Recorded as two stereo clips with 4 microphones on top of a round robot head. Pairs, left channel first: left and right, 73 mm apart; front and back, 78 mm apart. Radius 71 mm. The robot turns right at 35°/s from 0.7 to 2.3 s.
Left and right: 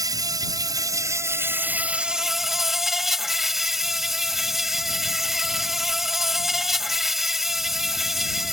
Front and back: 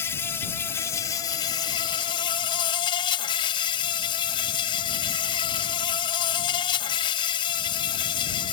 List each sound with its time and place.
0.0 s an insect: 60° right; by 8.5 s 5° right